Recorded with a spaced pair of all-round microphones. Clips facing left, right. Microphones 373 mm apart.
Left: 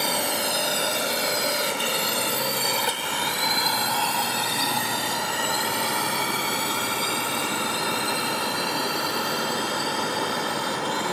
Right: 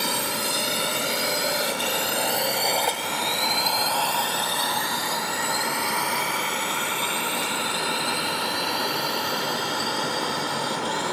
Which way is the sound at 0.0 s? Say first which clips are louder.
Left 2 dB; 20° right (ahead or behind).